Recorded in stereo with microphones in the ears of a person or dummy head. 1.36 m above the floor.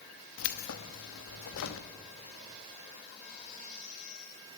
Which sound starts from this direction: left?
Keys jangling, at 0.4 s.